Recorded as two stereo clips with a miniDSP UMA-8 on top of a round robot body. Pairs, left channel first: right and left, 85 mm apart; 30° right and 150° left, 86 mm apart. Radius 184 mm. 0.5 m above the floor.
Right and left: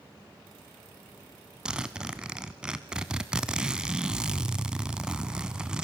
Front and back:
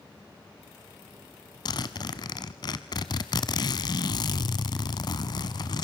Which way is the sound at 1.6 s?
10° left.